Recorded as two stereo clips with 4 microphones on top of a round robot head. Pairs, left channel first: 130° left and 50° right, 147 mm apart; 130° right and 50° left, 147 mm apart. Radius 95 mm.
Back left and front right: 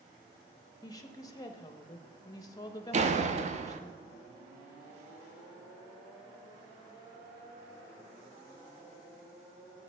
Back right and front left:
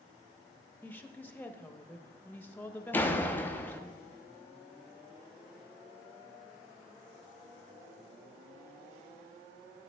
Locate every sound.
0.8 s a woman speaking: 165° left, 0.7 m
2.9 s a door slam: 55° right, 0.7 m